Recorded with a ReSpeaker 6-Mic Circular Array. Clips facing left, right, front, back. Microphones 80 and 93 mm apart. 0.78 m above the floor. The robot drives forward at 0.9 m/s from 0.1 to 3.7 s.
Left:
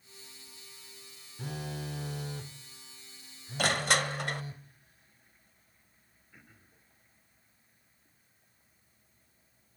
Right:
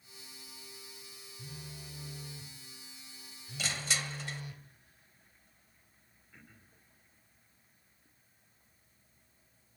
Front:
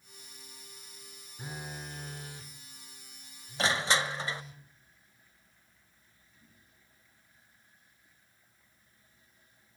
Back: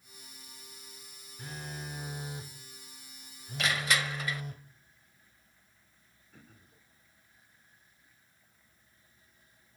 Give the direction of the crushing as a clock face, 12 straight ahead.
10 o'clock.